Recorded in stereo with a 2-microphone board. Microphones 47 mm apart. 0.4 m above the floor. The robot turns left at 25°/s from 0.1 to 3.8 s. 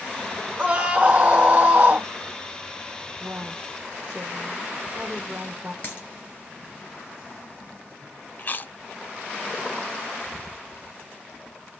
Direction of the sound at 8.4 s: 40° left (ahead or behind).